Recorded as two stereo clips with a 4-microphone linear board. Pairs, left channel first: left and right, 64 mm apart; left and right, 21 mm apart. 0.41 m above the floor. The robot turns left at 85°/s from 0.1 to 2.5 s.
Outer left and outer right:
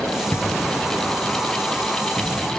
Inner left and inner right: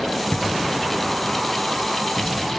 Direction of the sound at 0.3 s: 35° left (ahead or behind).